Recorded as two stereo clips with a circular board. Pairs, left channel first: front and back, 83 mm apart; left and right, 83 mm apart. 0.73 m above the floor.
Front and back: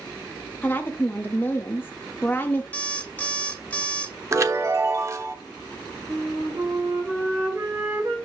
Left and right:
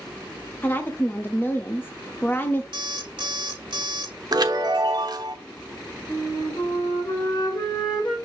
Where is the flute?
125° left, 3 m.